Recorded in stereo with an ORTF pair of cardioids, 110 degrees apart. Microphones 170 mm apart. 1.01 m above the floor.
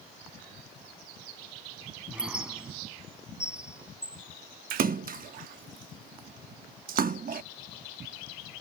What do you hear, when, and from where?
2.1 s a squeak: 5° right
4.7 s a splash: 60° right